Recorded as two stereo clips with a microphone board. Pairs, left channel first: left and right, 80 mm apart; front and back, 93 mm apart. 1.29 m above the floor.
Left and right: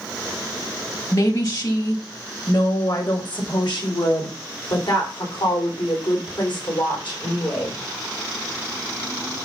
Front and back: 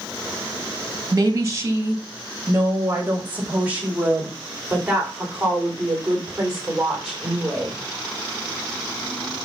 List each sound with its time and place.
1.1 s a woman speaking: 125° left, 2.5 m; by 7.8 s 95° left, 6 m